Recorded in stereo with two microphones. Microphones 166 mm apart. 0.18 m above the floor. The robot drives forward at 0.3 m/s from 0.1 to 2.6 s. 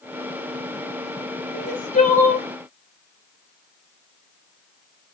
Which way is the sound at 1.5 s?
55° left (ahead or behind).